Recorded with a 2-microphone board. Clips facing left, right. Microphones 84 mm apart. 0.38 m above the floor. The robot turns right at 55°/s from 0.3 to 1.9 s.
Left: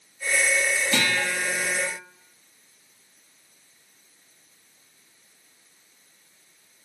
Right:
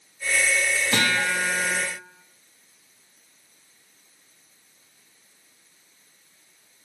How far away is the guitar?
About 0.8 m.